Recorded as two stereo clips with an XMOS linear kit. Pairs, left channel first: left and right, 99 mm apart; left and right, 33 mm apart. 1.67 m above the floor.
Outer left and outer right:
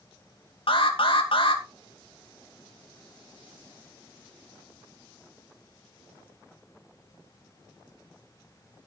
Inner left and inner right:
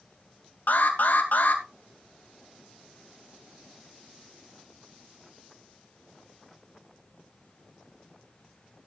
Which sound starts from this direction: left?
An alarm, at 0.7 s.